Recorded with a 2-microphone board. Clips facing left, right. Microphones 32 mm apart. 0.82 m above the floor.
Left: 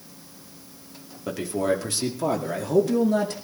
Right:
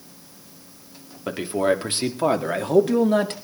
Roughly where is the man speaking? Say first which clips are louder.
Right 3 dB; right.